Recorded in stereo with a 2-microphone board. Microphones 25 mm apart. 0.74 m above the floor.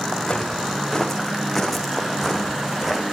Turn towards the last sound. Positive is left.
turn(degrees=-15)  # may be behind; listen again after turning